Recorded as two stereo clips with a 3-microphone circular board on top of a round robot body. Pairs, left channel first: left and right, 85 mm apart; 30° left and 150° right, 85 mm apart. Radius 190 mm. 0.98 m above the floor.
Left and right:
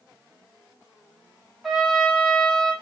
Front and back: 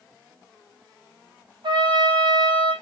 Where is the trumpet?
Straight behind, 4 m.